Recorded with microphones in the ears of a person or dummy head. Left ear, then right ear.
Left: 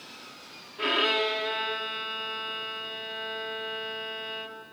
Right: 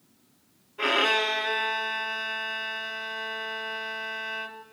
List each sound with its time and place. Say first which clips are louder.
0.8 s a violin: right 2 dB; 25° right (ahead or behind), 0.6 m